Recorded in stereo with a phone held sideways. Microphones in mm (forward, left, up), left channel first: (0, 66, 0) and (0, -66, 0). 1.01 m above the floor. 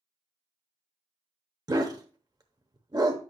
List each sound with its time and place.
1.7 s a dog barking: 30° right (ahead or behind), 0.8 m